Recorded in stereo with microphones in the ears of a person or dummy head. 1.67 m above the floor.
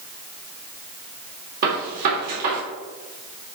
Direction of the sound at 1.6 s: 50° right (ahead or behind).